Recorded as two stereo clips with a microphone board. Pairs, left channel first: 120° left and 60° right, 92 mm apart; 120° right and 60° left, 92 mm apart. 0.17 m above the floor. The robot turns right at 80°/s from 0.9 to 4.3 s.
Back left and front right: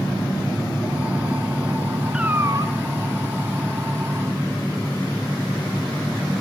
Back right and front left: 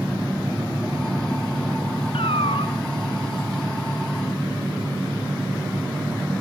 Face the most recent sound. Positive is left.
turn(degrees=30)